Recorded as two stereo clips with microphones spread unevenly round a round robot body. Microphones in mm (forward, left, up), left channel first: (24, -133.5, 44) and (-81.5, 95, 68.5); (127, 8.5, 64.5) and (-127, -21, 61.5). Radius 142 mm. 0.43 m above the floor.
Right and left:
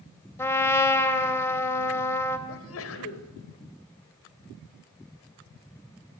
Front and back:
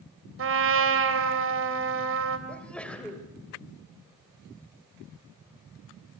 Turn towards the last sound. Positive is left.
turn(degrees=-80)